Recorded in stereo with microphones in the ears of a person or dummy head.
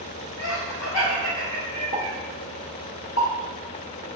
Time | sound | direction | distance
0.4 | laughter | 85° left | 1.5 m
1.9 | a pop | 80° left | 1.0 m